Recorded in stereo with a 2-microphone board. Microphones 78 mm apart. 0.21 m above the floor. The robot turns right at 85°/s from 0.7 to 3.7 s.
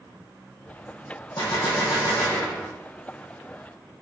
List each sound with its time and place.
1.4 s a gunshot: 65° left, 3.5 m; by 2.7 s straight behind, 3.5 m